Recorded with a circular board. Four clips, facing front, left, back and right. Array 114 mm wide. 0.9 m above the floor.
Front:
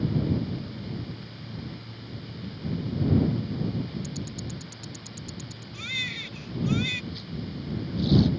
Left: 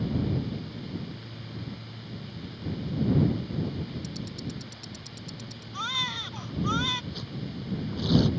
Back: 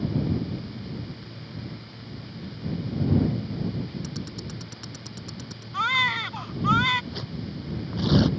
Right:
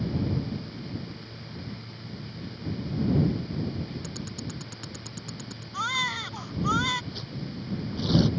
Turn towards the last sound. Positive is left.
turn(degrees=-175)